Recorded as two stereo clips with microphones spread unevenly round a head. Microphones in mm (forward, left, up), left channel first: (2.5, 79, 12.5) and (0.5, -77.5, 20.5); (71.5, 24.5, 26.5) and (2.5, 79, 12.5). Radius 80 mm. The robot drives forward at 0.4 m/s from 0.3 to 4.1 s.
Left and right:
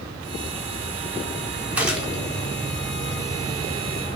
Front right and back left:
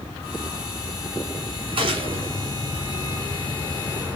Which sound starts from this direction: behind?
A gunshot, at 1.8 s.